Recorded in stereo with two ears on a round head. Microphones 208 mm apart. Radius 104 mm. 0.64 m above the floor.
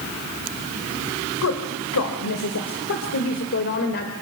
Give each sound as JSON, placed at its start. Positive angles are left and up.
{"t": 1.4, "sound": "a woman speaking", "side_deg": 75, "distance_m": 2.5}